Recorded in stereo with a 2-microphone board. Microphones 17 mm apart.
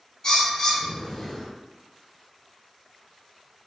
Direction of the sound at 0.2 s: 35° left (ahead or behind).